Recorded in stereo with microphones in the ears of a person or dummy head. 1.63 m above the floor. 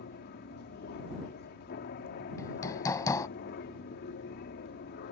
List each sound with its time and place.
0.0 s an aircraft: 50° left (ahead or behind)
2.4 s hammering: 15° left (ahead or behind)